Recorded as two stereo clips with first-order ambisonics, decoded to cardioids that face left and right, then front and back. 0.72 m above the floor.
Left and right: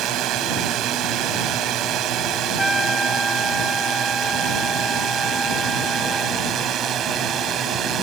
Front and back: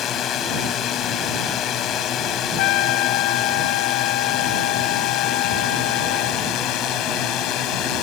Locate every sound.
0.0 s a drone: 50° right; by 8.0 s 35° right
2.6 s a trumpet: straight ahead